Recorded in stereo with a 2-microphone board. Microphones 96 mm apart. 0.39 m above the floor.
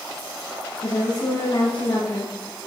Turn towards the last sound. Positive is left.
turn(degrees=75)  # may be behind; listen again after turning